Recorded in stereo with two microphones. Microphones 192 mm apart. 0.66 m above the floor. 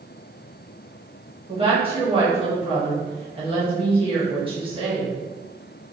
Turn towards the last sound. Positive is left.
turn(degrees=-30)  # may be behind; listen again after turning